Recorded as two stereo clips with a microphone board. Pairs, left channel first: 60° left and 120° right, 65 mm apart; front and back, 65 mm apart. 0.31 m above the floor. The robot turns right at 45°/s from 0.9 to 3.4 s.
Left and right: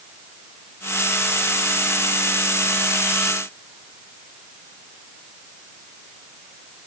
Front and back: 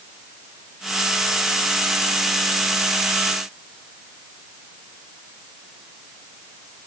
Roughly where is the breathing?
I don't hear breathing.